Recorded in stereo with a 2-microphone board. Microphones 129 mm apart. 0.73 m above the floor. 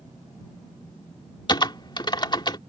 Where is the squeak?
I don't hear a squeak.